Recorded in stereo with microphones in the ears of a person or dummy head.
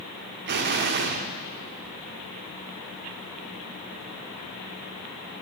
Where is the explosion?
55° right (ahead or behind), 1.9 m.